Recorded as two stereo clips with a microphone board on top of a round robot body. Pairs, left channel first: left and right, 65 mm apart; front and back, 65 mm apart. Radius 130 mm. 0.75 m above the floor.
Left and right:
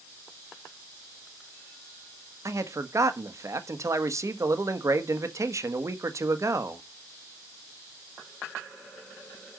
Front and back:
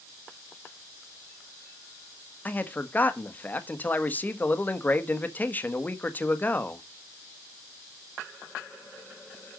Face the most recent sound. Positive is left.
turn(degrees=-60)